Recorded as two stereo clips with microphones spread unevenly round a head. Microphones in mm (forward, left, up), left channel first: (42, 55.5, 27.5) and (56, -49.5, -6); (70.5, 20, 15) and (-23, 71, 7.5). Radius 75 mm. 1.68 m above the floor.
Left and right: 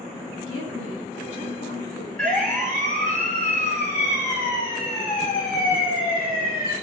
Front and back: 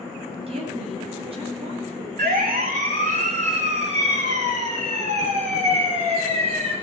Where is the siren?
Straight behind, 2.5 m; by 6.7 s 125° left, 7.5 m.